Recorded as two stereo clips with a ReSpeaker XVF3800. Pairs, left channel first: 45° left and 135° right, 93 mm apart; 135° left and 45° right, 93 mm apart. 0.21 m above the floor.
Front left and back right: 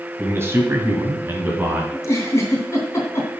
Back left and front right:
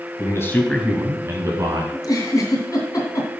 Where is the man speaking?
170° left, 1.5 m; by 1.8 s 70° right, 1.9 m.